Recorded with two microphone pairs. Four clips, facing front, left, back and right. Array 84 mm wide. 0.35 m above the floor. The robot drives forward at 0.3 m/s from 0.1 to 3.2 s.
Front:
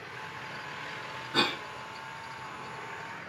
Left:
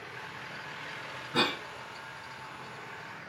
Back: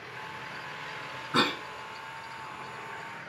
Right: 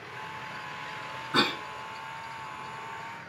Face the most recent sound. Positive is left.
turn(degrees=-135)